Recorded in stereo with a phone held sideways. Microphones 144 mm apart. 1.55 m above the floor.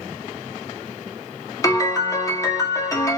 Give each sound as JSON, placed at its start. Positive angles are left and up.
{"t": 1.6, "sound": "a piano", "side_deg": 25, "distance_m": 1.1}